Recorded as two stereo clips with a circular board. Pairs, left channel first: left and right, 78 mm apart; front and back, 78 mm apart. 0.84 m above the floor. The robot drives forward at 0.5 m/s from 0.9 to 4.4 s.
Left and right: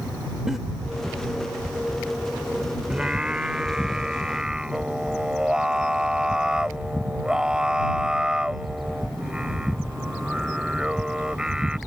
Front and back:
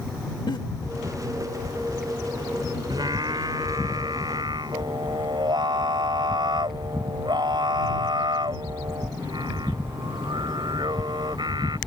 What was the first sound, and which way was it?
A giggle, 5° right.